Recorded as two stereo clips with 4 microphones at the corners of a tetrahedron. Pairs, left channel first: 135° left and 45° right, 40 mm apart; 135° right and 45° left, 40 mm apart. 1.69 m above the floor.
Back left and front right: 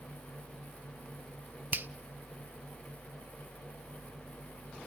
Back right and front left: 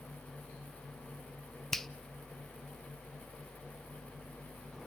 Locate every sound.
1.7 s a finger snap: 55° right, 0.6 m